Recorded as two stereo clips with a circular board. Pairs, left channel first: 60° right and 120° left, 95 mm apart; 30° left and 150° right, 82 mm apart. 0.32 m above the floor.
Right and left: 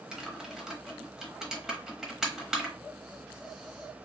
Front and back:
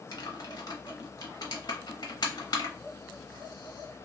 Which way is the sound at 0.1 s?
35° left.